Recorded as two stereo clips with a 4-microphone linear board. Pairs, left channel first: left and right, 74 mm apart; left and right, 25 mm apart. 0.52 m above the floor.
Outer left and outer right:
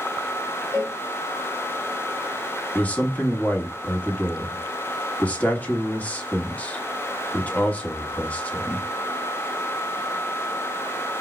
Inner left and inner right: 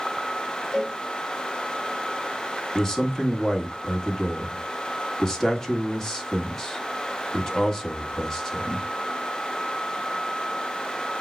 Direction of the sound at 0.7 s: 5° right (ahead or behind).